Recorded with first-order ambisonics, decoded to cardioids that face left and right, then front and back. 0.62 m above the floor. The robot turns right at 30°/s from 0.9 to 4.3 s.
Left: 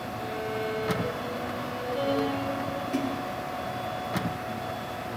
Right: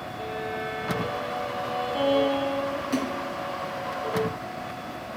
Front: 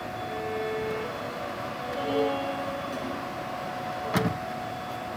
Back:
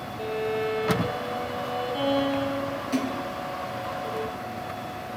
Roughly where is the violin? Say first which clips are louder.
Right 1 dB, back 5 dB; behind.